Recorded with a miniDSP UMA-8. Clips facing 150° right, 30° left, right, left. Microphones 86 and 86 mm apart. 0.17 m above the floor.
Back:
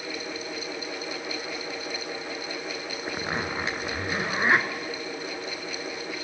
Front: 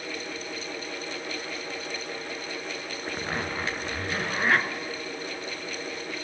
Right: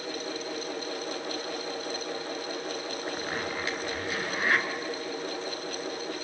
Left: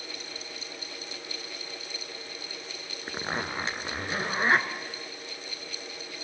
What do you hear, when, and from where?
3.1 s a zipper: 145° left, 1.3 m